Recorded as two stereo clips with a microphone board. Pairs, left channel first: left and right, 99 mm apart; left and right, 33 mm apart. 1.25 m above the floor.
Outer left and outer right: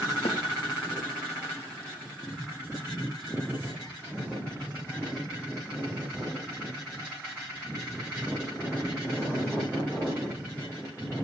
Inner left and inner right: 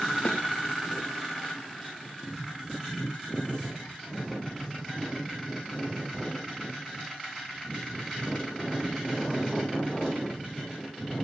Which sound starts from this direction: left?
A snare drum, at 0.2 s.